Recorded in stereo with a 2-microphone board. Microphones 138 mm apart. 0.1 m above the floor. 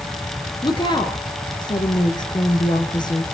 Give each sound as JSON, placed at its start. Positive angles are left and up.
{"t": 0.6, "sound": "a woman speaking", "side_deg": 35, "distance_m": 1.6}